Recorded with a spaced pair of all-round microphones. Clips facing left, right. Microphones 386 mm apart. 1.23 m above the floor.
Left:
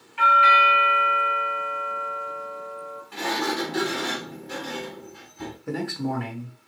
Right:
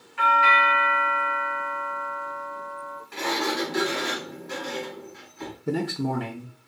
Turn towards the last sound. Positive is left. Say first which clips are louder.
# right 2 dB
turn(degrees=-50)  # may be behind; listen again after turning